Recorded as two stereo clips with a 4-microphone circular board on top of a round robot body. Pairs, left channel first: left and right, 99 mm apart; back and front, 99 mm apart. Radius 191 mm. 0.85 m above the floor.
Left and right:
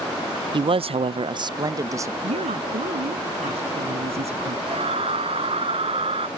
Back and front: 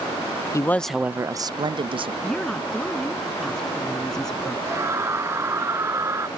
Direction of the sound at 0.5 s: 125° right.